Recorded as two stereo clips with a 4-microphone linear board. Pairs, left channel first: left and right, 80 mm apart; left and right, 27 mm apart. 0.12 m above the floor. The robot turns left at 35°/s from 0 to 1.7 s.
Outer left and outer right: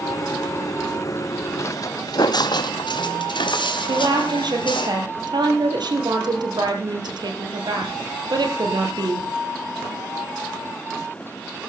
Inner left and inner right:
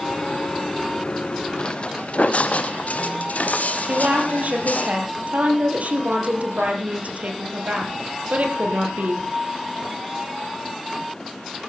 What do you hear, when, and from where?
1.6 s footsteps: 35° left (ahead or behind), 0.8 m; by 4.9 s 80° left, 3 m
3.9 s a woman speaking: 60° right (ahead or behind), 3 m